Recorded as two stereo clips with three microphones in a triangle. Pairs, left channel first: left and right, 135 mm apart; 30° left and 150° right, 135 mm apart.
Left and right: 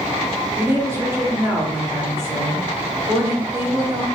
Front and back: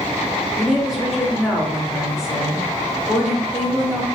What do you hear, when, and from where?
0.6 s a woman speaking: 65° right, 0.7 m